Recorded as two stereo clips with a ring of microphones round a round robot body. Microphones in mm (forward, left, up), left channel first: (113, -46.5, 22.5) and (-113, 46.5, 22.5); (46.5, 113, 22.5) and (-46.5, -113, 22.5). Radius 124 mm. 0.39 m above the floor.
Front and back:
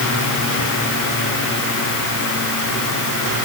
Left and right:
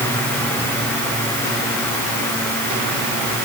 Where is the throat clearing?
No throat clearing in this recording.